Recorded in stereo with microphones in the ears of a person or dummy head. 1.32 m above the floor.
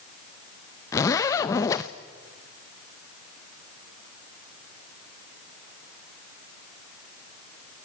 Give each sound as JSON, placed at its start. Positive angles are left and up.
{"t": 0.9, "sound": "a zipper", "side_deg": 15, "distance_m": 0.6}